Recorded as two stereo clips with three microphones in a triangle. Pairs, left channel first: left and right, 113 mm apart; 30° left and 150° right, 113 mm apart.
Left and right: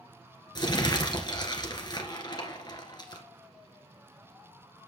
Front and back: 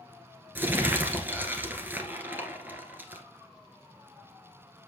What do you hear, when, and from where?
0.6 s crumpling: 140° left, 1.8 m